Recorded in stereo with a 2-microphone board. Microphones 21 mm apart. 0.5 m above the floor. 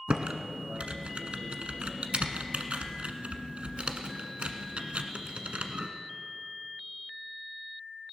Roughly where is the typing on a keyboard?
Right.